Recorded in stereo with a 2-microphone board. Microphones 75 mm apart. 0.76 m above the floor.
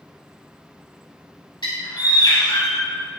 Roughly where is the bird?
Left.